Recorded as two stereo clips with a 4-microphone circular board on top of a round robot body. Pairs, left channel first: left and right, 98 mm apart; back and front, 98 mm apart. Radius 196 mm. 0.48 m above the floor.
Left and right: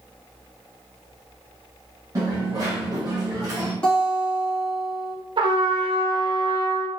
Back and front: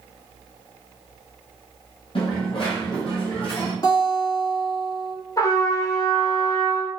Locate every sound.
2.1 s a dropped coin: 145° right, 0.5 m
3.8 s a guitar: 165° left, 1.6 m
5.4 s a trumpet: 125° right, 0.5 m